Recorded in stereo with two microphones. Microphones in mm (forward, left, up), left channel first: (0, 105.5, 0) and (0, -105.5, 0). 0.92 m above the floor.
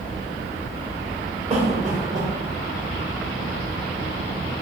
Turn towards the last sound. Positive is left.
turn(degrees=-30)  # may be behind; listen again after turning